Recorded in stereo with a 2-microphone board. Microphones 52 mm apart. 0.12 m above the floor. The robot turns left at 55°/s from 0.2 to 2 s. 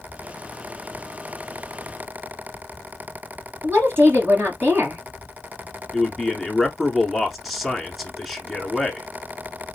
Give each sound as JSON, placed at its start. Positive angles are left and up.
{"t": 3.6, "sound": "a woman speaking", "side_deg": -45, "distance_m": 1.9}
{"t": 5.9, "sound": "a man speaking", "side_deg": 0, "distance_m": 1.2}